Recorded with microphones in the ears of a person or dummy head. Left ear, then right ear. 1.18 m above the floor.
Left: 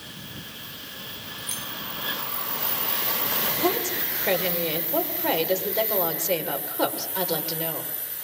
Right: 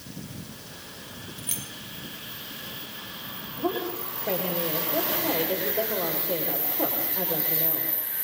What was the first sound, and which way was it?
Keys jangling, 5° right (ahead or behind).